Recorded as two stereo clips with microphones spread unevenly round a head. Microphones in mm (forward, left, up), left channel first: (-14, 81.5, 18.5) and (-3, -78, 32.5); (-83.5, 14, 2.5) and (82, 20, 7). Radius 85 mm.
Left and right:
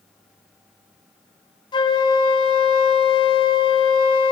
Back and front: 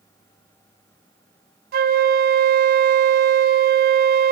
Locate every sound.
1.7 s a flute: 30° left, 0.5 m